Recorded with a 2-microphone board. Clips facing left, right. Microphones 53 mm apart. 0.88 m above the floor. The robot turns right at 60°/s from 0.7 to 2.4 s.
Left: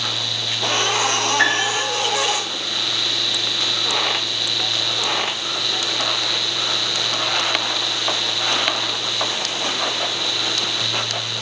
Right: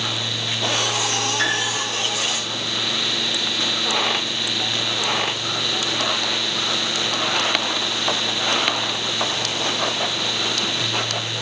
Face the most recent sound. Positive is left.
turn(degrees=85)